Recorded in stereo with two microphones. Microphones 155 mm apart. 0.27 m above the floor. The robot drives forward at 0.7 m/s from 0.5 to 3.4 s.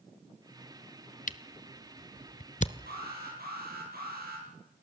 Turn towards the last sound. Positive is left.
turn(degrees=-80)